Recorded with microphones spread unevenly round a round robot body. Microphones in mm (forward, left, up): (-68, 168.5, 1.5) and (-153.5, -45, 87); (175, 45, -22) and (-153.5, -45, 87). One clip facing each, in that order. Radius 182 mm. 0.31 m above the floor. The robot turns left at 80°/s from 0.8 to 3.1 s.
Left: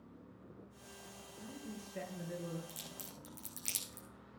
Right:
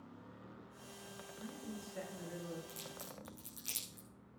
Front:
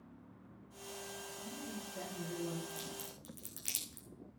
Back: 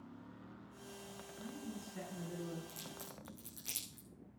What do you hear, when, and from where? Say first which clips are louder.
1.4 s a man speaking: even, back 1 dB; 175° left, 5 m; by 2.6 s 75° left, 5 m
2.7 s a crack: right 2 dB, front 4 dB; 105° left, 6.5 m; by 4.1 s 75° left, 6.5 m